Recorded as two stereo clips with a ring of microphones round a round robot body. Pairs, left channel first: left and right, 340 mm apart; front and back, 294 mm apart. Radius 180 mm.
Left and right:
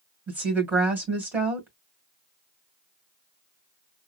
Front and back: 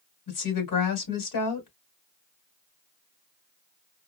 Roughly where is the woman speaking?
Ahead.